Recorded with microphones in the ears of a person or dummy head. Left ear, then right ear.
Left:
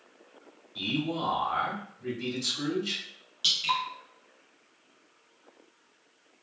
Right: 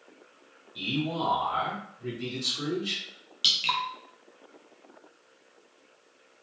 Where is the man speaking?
5° right (ahead or behind), 1.2 m.